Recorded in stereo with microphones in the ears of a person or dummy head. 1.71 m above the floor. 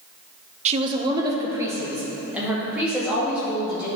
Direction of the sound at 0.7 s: 35° right (ahead or behind).